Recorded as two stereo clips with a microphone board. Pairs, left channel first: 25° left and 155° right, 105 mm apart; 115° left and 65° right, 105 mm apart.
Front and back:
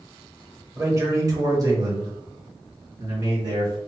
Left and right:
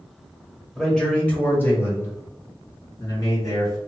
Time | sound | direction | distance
0.7 | a man speaking | 165° right | 1.1 m